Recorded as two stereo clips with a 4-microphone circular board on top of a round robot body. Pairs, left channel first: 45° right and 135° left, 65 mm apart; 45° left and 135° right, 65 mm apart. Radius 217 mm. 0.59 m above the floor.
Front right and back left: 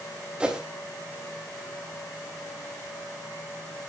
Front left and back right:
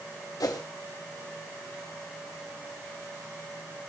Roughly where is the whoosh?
Ahead left.